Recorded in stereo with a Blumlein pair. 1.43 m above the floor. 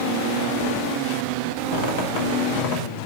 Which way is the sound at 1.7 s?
50° left.